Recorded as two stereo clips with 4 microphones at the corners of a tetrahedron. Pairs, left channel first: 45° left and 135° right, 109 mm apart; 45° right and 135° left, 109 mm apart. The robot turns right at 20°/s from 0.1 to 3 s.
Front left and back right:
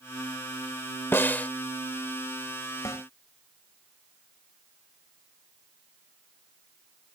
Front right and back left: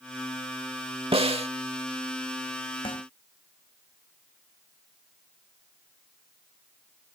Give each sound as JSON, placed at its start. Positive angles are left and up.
{"t": 1.1, "sound": "a snare drum", "azimuth_deg": 110}
{"t": 2.9, "sound": "a snare drum", "azimuth_deg": -15}